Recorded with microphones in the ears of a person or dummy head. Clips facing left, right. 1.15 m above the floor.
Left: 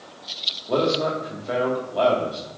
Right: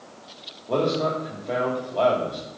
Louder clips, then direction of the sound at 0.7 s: Left 1 dB; 5° left (ahead or behind).